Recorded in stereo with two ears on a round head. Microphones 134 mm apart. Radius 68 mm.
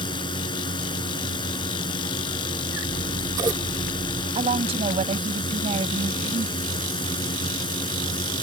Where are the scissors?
25° right (ahead or behind).